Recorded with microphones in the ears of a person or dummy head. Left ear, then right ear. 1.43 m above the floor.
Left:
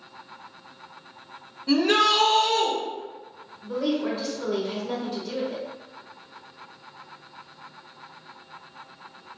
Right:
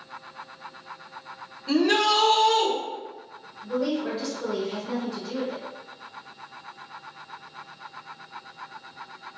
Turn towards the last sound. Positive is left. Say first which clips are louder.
# left 1 dB
turn(degrees=10)  # may be behind; listen again after turning